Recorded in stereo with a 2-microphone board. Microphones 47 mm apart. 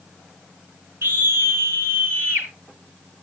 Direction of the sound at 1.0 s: 70° right (ahead or behind).